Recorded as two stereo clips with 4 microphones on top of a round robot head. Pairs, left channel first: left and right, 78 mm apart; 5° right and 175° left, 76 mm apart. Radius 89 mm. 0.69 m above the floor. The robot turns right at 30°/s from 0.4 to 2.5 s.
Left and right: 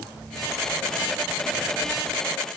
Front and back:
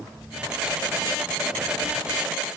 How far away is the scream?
No scream in this recording.